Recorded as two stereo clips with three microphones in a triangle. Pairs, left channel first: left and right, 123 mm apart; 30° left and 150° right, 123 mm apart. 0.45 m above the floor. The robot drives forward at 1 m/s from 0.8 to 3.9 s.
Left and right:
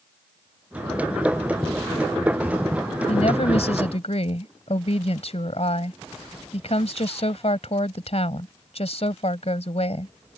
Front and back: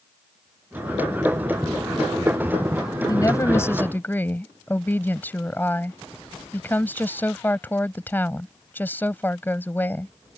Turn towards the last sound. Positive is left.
turn(degrees=100)